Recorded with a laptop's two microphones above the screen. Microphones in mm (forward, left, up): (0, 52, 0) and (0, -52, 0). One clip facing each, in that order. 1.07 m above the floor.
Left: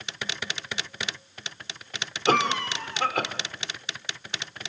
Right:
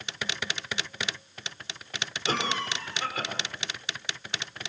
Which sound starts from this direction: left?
A cough, at 2.3 s.